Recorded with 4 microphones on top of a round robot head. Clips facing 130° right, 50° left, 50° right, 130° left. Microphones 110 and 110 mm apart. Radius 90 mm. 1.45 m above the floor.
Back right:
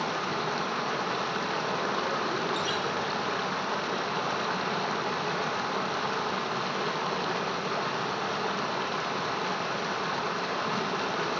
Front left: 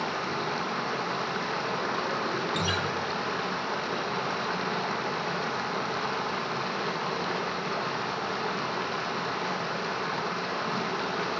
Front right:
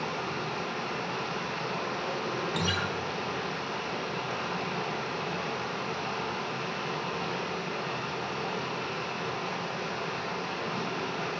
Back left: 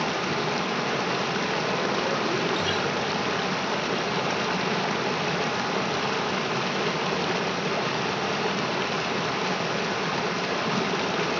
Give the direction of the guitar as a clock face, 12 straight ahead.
12 o'clock.